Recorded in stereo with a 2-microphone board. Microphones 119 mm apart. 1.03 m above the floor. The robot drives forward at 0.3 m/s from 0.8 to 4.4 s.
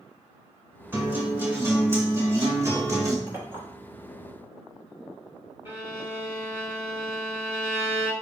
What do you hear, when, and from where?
0.9 s a guitar: 15° right (ahead or behind), 1.9 m; by 3.2 s 25° right (ahead or behind), 1.3 m
3.3 s a clink: 25° right (ahead or behind), 1.5 m; by 3.6 s 20° right (ahead or behind), 1.6 m
5.7 s a violin: 20° right (ahead or behind), 1.0 m